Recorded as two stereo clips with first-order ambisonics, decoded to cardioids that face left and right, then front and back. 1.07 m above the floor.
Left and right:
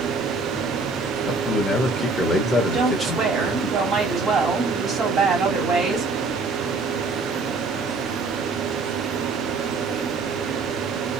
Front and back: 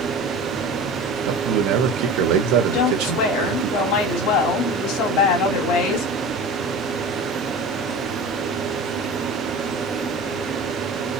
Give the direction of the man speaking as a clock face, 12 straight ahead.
6 o'clock.